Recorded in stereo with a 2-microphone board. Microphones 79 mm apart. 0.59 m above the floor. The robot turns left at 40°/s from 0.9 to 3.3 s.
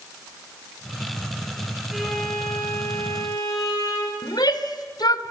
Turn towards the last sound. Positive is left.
turn(degrees=65)  # may be behind; listen again after turning